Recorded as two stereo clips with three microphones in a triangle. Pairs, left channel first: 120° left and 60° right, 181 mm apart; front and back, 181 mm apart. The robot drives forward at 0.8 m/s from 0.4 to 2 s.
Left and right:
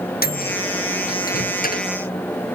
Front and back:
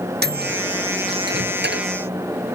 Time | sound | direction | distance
0.2 | a microwave | 155° left | ?